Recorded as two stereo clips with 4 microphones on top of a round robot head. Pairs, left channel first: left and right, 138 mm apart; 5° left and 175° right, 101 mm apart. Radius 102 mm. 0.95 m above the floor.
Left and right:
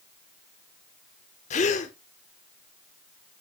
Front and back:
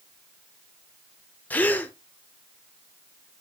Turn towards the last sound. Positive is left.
turn(degrees=70)